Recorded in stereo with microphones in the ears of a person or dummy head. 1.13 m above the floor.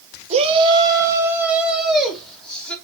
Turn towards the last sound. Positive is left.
turn(degrees=10)  # may be behind; listen again after turning